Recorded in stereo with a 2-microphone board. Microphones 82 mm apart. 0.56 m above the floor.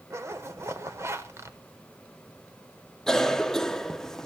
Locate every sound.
0.1 s a zipper: 35° right (ahead or behind), 1.2 m
3.1 s a cough: 5° left (ahead or behind), 0.6 m